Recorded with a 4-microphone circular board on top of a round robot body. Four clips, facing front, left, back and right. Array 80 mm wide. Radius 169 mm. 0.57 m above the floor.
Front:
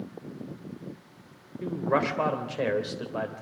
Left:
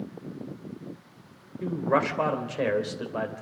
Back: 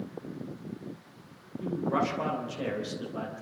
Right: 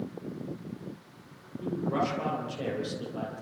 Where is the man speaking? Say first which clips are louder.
Left 4 dB, front 2 dB; 55° left, 3 m.